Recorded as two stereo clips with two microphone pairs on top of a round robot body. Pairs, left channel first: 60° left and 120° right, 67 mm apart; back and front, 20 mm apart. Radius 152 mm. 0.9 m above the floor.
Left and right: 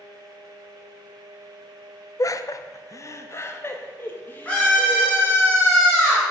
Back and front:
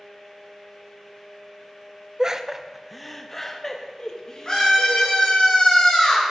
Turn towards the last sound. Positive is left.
turn(degrees=125)